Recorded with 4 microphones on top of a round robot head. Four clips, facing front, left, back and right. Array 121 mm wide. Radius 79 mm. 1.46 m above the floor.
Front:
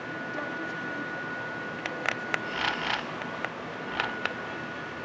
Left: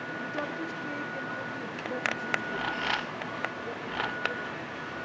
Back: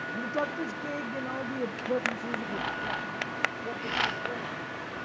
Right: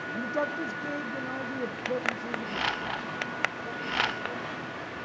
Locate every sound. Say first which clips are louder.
0.1 s a man speaking: right 5 dB, back 5 dB; 125° right, 1.6 m; by 4.6 s 165° right, 6 m